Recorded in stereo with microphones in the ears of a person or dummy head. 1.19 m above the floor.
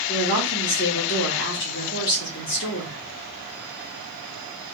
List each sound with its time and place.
0.1 s a woman speaking: 60° left (ahead or behind), 2 m